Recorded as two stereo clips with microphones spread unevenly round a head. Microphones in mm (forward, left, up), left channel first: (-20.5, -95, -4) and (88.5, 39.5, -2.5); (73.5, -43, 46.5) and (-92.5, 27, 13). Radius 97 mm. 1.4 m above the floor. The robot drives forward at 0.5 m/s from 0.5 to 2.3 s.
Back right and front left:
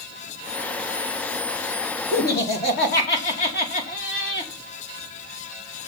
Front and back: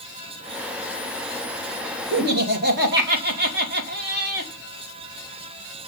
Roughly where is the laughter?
Behind.